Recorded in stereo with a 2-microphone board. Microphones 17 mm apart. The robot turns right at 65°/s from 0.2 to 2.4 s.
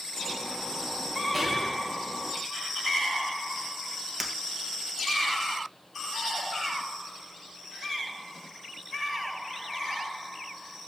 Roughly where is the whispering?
Centre.